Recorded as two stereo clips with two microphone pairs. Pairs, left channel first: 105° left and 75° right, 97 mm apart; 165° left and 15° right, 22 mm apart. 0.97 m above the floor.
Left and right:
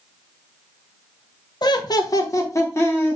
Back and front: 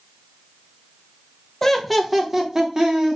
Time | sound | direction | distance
1.6 | laughter | 90° left | 0.5 m